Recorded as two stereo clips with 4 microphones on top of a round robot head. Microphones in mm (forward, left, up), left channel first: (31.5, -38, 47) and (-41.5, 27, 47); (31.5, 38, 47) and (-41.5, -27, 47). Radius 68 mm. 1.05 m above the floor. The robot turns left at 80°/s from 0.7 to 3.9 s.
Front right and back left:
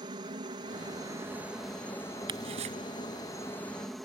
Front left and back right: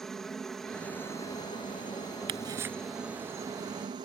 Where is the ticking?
Straight behind; by 2.8 s 145° left.